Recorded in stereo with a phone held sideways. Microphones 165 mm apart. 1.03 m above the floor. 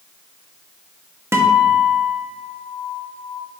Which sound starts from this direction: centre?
A guitar, at 1.3 s.